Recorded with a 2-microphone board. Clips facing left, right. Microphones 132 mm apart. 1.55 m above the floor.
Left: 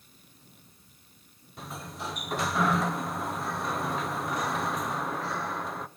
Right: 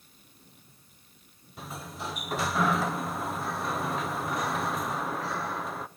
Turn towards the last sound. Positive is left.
turn(degrees=0)  # may be behind; listen again after turning